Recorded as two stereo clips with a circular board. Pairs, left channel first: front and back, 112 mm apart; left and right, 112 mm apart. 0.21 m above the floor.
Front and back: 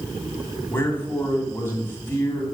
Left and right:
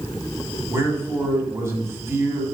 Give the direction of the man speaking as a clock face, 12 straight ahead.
2 o'clock.